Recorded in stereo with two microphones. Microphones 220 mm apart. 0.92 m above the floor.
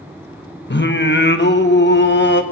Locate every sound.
0.7 s singing: 55° left (ahead or behind), 1.1 m